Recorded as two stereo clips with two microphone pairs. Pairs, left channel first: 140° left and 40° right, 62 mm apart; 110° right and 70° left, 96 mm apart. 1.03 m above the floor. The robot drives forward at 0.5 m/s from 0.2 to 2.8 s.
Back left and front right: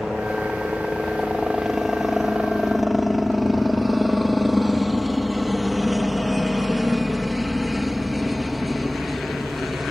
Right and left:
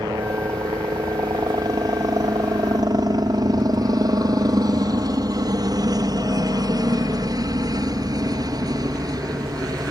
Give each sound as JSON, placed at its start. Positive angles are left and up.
{"t": 0.0, "sound": "a helicopter", "azimuth_deg": 45}